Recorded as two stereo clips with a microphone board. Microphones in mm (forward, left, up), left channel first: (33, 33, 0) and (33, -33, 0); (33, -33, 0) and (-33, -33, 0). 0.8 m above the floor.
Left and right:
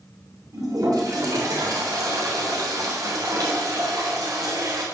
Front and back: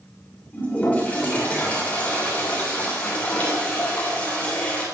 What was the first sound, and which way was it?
A toilet flushing, 70° right.